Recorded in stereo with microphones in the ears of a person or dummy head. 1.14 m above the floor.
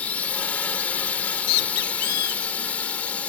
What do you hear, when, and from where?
0.0 s a drone: 10° left (ahead or behind)
1.1 s a bird: 75° left (ahead or behind)